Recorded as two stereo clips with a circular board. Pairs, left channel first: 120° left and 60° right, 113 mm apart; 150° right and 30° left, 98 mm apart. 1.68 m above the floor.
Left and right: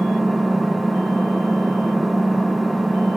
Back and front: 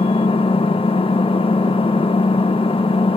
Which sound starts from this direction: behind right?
An engine running, at 0.0 s.